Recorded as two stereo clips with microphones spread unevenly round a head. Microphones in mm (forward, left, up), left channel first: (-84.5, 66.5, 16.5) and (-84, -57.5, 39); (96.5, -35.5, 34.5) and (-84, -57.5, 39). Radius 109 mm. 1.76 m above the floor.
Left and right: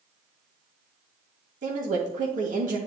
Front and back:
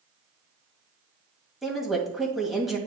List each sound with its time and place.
1.6 s a woman speaking: 85° right, 2 m